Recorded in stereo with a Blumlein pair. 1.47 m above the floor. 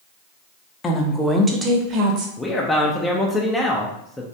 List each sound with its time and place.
0.8 s a woman speaking: 20° left, 0.7 m; by 2.3 s 40° right, 1.0 m
2.4 s a man speaking: 10° left, 0.6 m